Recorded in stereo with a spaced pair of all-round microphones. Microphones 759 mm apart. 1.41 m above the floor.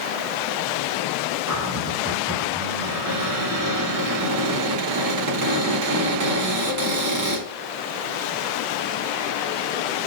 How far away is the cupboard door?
About 4 m.